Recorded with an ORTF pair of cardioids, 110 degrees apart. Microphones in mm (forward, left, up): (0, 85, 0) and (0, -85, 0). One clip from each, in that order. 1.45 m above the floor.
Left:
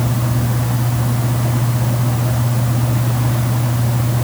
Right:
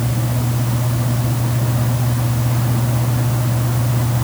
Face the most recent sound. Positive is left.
No sound to turn to.